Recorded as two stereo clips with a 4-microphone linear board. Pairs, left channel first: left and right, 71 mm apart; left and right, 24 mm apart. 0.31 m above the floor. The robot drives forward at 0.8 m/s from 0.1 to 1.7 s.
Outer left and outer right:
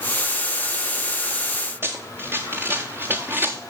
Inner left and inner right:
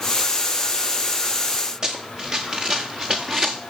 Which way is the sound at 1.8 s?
35° right (ahead or behind).